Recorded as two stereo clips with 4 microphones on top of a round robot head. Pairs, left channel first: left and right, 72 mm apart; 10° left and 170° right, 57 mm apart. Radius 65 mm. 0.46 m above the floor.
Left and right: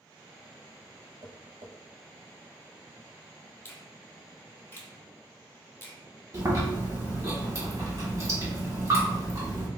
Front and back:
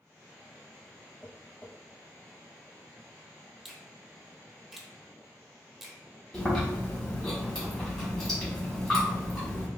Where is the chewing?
70° right, 1.9 m.